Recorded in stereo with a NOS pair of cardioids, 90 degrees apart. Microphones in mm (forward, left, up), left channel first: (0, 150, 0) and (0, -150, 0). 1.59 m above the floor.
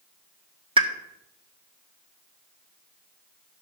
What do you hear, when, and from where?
0.8 s a pop: 20° right, 1.2 m